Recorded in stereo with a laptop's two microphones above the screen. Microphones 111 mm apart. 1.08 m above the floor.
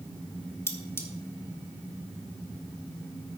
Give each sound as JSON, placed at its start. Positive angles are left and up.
{"t": 0.7, "sound": "cutlery clinking", "side_deg": 25, "distance_m": 1.5}